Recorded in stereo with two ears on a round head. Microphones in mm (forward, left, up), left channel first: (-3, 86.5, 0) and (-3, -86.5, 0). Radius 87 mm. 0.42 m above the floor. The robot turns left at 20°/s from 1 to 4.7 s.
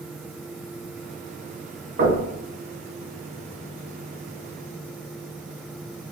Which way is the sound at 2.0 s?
50° right (ahead or behind).